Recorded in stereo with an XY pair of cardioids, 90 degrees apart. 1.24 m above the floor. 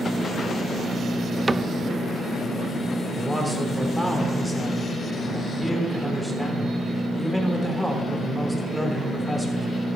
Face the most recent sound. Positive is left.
turn(degrees=5)